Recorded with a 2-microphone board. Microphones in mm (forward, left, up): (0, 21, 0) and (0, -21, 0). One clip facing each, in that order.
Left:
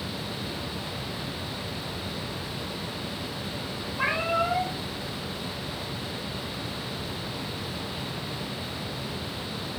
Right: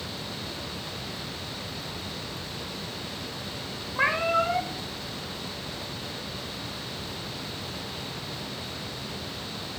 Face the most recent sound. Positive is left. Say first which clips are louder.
# right 2 dB
turn(degrees=-85)